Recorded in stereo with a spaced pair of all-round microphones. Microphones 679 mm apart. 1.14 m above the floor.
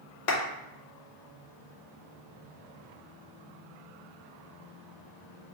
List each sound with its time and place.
0.3 s a clap: 75° left (ahead or behind), 1.0 m